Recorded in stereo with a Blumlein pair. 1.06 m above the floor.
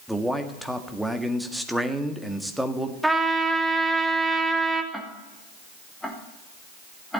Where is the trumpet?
5° right, 1.3 m.